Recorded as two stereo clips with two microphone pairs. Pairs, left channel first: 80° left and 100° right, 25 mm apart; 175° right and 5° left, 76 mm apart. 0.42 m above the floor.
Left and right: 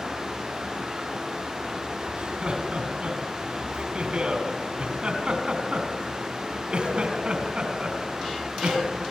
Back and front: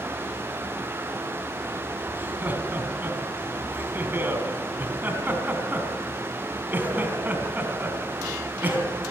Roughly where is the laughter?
Ahead right.